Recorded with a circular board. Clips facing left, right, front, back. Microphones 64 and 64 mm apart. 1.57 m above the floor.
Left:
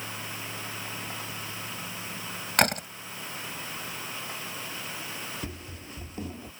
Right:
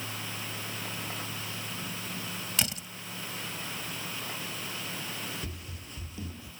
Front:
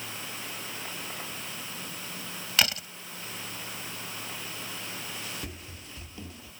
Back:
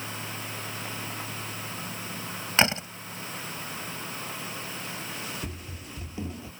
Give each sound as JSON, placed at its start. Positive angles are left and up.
{"t": 2.6, "sound": "a door slam", "azimuth_deg": 120}
{"t": 5.4, "sound": "running footsteps", "azimuth_deg": 80}